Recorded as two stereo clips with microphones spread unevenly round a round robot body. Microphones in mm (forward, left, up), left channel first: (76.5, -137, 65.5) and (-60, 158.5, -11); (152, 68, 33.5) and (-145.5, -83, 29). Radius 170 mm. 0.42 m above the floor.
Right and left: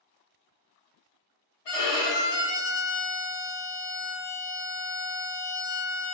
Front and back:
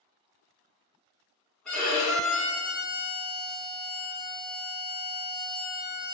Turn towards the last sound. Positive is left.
turn(degrees=-60)